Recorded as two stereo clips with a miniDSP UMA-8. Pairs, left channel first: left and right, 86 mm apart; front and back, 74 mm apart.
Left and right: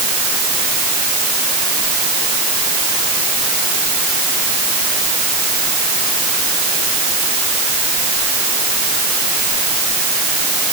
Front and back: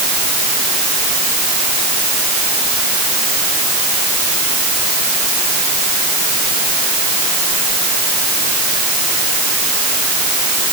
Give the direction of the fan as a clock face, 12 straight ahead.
I don't hear a fan.